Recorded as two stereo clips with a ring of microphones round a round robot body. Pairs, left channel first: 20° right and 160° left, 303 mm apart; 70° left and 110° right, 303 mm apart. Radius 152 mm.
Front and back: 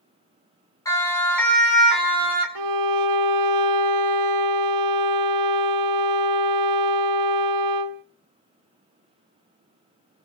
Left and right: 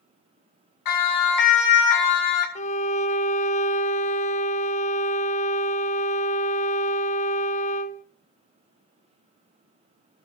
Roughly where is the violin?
Behind left.